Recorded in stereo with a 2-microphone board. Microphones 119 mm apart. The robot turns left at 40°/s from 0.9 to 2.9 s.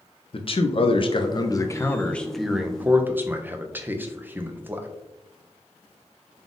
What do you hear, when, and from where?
0.3 s a man speaking: 60° left, 0.5 m; by 4.9 s 20° right, 0.5 m